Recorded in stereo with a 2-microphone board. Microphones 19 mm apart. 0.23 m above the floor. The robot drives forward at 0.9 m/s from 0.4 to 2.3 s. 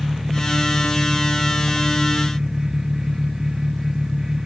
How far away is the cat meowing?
I don't hear a cat meowing.